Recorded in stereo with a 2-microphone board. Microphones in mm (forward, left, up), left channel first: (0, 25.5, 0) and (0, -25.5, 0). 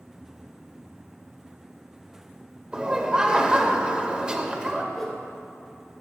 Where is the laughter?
20° right (ahead or behind), 1.3 m.